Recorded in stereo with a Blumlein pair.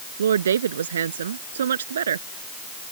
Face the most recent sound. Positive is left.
turn(degrees=-65)